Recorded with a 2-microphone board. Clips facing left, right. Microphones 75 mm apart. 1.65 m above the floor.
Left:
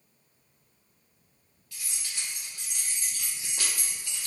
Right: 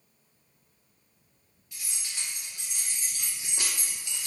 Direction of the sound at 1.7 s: 15° right (ahead or behind).